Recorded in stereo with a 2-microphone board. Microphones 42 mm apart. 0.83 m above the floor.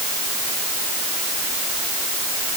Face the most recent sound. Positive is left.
No sound to turn to.